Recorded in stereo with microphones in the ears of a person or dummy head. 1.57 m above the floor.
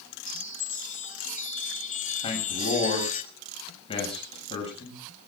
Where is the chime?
40° left (ahead or behind), 0.7 m.